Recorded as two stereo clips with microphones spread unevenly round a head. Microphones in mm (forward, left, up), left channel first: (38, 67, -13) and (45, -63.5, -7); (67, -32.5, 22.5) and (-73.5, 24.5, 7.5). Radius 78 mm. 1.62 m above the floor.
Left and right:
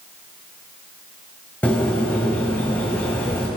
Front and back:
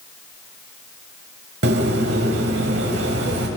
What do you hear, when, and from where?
1.6 s a bird: 175° left, 1.9 m